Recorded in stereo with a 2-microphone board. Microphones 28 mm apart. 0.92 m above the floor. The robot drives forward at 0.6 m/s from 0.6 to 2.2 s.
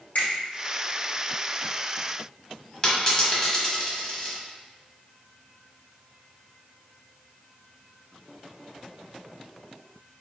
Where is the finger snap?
65° left (ahead or behind), 1.9 m.